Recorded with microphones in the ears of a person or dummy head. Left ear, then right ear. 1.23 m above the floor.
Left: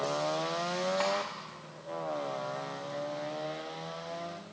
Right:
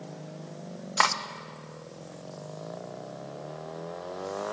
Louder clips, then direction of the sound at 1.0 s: Right 9 dB; 60° right (ahead or behind).